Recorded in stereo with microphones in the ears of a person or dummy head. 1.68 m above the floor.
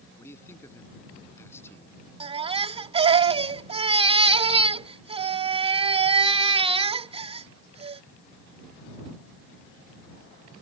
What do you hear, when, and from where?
0.2 s a man speaking: 20° left (ahead or behind)
2.2 s a baby crying: 35° right (ahead or behind)